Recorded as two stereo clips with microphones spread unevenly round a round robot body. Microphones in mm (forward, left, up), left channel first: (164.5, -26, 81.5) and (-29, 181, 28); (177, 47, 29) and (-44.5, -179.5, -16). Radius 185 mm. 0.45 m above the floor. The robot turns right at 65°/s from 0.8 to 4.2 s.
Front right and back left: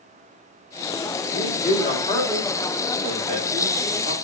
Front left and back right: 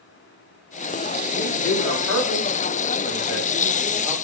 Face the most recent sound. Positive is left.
turn(degrees=175)